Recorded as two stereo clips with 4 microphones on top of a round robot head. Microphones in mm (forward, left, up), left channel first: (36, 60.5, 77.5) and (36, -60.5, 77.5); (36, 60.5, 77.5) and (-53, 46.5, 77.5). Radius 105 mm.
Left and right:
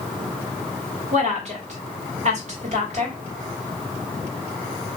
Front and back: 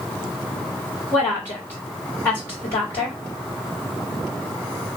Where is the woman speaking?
60° right, 1.9 m.